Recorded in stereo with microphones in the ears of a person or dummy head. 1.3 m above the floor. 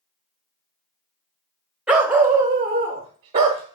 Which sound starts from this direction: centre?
A dog barking, at 1.9 s.